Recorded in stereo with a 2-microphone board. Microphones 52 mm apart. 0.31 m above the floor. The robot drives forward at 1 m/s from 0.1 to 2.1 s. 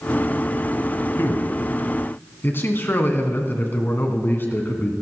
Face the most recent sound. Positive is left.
turn(degrees=45)  # may be behind; listen again after turning